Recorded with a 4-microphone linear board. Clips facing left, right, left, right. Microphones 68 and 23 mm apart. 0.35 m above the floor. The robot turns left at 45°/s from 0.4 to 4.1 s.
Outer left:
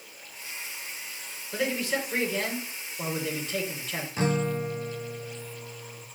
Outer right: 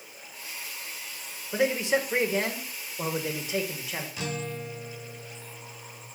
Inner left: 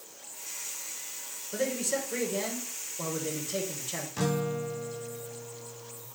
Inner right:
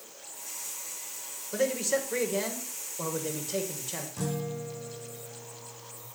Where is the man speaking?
15° right (ahead or behind), 1.4 m; by 4.1 s 5° right (ahead or behind), 1.4 m.